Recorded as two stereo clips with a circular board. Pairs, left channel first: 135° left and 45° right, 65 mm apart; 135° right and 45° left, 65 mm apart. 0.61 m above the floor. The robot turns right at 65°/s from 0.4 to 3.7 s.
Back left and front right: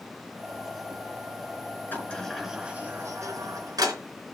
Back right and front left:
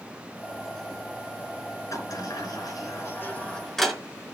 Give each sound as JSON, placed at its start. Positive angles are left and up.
{"t": 1.9, "sound": "a sliding door", "azimuth_deg": -165, "distance_m": 4.0}